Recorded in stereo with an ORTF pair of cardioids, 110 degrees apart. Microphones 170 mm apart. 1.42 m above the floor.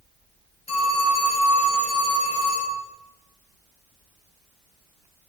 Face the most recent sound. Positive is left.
turn(degrees=40)